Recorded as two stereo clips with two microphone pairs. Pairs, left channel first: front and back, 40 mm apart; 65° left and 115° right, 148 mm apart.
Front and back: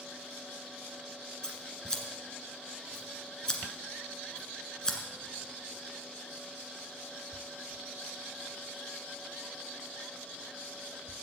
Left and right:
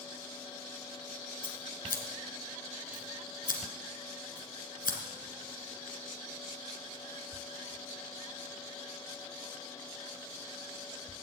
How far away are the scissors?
About 1.8 m.